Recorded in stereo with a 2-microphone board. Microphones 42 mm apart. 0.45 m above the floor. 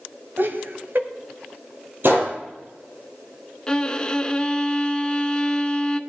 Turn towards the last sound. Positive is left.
turn(degrees=20)  # may be behind; listen again after turning